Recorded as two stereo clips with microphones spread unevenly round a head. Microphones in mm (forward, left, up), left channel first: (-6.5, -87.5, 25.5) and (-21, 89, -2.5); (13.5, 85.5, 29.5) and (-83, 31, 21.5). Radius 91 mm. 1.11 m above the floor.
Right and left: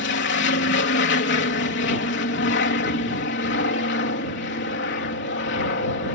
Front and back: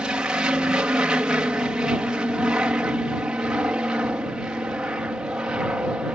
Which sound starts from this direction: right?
An aircraft, at 0.0 s.